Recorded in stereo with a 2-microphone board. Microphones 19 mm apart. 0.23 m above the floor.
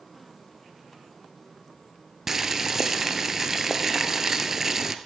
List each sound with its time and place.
2.3 s boiling: 20° right (ahead or behind), 1.0 m